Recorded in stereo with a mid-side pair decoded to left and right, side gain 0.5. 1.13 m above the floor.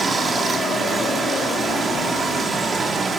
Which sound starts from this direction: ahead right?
Running water, at 0.0 s.